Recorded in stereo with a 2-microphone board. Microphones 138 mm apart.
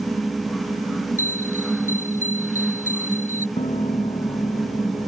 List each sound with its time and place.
1.2 s a bell: 70° left (ahead or behind)
3.6 s a piano: 45° left (ahead or behind)